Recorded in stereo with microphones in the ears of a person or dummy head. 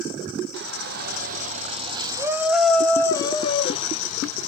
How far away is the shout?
About 1.4 m.